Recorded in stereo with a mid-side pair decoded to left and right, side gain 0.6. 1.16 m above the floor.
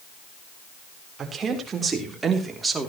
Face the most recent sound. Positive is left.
turn(degrees=-20)